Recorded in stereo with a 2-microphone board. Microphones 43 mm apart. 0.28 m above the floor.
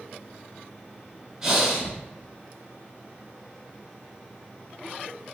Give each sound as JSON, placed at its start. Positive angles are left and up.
{"t": 1.4, "sound": "breathing", "side_deg": -15, "distance_m": 1.0}